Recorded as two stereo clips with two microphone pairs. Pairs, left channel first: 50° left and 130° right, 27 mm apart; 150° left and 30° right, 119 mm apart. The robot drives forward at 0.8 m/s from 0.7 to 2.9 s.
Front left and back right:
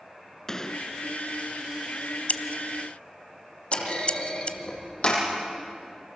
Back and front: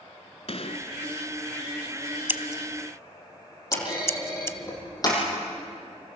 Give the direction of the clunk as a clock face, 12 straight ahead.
9 o'clock.